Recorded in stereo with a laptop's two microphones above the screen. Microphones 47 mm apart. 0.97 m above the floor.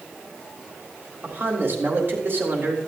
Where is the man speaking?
55° right (ahead or behind), 3 m.